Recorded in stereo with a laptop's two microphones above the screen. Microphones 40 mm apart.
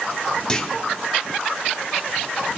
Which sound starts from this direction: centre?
A clunk, at 0.5 s.